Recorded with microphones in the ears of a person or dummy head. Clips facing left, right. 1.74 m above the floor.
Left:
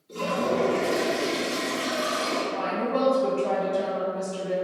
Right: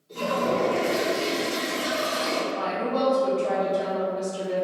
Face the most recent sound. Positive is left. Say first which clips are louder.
# even
turn(degrees=45)  # may be behind; listen again after turning